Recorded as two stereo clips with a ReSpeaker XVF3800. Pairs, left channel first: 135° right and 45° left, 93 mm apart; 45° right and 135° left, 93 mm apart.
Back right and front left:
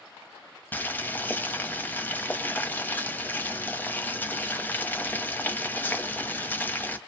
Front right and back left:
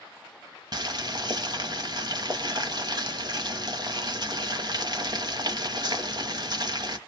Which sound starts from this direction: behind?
Boiling, at 0.7 s.